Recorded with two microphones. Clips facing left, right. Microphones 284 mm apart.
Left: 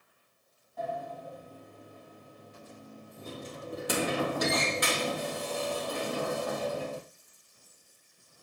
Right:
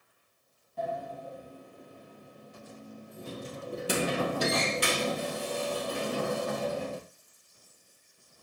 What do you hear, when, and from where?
0.8 s a sliding door: 35° right (ahead or behind), 3 m